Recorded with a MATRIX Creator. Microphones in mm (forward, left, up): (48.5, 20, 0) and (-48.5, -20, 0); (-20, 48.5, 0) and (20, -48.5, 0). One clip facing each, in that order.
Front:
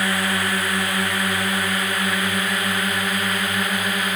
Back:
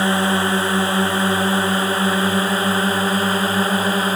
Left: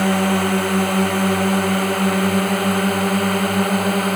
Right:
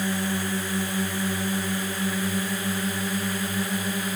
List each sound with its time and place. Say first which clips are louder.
0.0 s a drone: back 5 dB, left 10 dB; 140° left; by 4.2 s 145° left